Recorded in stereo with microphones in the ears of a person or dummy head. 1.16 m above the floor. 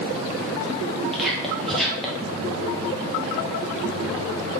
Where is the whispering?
Centre (ahead or behind), 0.5 m.